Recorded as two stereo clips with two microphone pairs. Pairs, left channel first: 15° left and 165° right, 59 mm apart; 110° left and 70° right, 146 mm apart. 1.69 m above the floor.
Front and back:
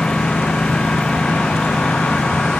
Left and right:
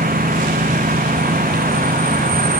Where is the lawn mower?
60° right.